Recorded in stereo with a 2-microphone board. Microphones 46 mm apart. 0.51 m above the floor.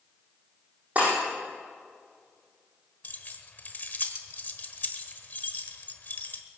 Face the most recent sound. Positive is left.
turn(degrees=40)  # may be behind; listen again after turning